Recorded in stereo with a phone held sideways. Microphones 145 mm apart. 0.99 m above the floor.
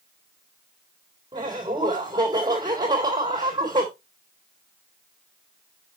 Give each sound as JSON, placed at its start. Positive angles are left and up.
{"t": 1.3, "sound": "laughter", "side_deg": -25, "distance_m": 3.5}